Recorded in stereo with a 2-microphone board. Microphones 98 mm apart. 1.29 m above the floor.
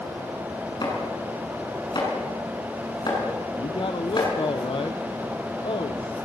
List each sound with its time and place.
0.8 s chopping: 50° left (ahead or behind), 7 m
3.5 s a man speaking: 60° left (ahead or behind), 1.0 m